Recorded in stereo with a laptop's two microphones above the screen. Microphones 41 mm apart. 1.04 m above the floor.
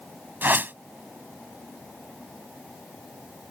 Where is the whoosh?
50° right (ahead or behind).